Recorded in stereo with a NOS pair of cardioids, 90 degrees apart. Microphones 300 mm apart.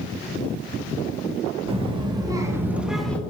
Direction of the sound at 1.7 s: 20° right.